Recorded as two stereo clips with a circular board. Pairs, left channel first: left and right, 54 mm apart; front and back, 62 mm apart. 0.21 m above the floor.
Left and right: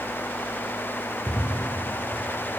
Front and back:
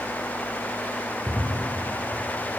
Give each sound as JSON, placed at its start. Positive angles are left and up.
{"t": 1.3, "sound": "a drawer", "azimuth_deg": 80, "distance_m": 6.0}